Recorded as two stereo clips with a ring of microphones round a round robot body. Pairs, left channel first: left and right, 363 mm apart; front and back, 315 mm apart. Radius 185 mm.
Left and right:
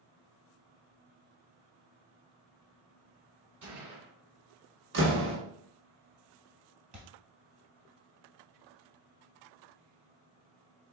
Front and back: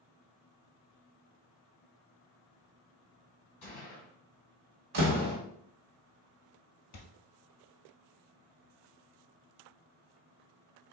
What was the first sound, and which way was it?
A gunshot, 45° right.